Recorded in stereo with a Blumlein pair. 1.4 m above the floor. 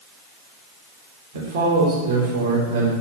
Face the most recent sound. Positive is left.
turn(degrees=-55)